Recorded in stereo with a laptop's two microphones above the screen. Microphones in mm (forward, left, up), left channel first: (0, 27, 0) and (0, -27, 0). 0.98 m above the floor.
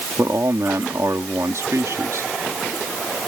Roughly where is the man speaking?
Right.